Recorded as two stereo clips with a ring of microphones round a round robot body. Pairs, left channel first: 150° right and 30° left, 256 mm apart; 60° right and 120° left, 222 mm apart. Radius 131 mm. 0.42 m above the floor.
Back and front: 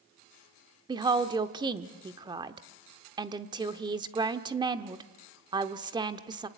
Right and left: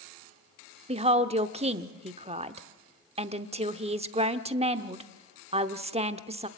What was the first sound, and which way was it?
A woman speaking, 90° left.